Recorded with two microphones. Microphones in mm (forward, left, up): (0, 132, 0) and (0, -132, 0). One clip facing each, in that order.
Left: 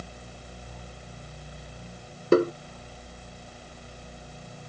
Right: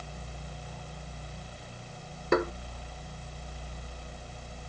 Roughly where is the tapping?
Left.